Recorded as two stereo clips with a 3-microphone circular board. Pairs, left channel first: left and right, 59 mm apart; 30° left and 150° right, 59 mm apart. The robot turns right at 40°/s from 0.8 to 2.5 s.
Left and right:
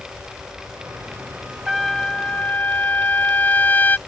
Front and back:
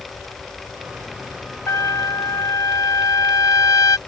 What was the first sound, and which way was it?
A trumpet, straight ahead.